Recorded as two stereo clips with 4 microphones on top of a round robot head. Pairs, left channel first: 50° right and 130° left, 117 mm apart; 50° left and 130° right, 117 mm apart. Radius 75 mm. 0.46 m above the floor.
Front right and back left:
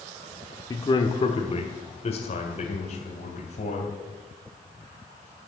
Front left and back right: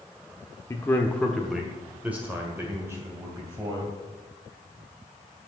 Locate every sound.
0.7 s a man speaking: 5° right, 1.1 m; by 4.0 s 70° right, 3 m